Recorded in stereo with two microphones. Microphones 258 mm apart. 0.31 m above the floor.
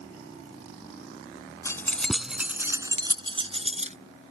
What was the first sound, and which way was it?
Keys jangling, 10° left (ahead or behind).